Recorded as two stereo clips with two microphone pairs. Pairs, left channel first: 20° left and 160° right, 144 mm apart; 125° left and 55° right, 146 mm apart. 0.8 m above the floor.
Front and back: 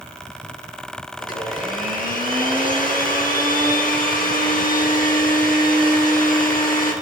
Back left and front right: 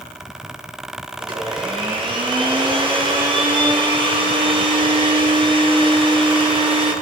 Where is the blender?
Straight ahead, 6 m.